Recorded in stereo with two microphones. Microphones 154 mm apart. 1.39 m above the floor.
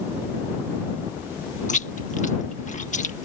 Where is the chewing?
55° left (ahead or behind).